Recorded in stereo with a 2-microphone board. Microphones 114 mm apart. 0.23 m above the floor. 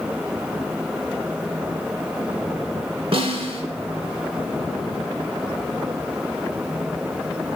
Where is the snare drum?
55° right (ahead or behind), 1.1 m.